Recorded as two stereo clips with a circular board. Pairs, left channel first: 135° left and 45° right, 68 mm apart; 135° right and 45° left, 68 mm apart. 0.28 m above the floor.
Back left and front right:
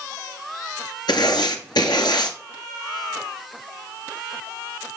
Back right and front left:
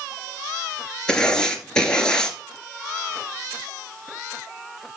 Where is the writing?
145° left, 2.5 m.